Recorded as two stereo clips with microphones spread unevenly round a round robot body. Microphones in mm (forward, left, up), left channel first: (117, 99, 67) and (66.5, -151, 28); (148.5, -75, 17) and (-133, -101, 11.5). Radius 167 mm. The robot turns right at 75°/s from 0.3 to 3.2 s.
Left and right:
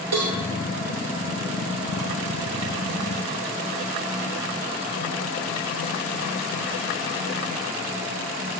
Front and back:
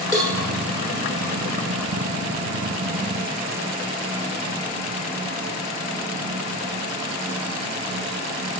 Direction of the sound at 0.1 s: 100° right.